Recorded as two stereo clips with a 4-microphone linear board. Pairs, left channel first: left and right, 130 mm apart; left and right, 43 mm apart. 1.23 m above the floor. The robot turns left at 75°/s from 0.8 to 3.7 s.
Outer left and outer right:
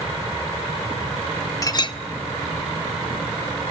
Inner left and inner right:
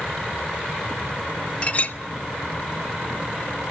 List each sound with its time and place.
1.6 s a clink: 30° left (ahead or behind), 0.8 m; by 2.0 s 45° left (ahead or behind), 0.8 m